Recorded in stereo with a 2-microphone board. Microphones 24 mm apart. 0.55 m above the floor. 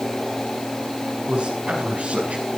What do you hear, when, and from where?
1.3 s a man speaking: 40° right (ahead or behind), 5.5 m; by 2.4 s 45° right (ahead or behind), 5 m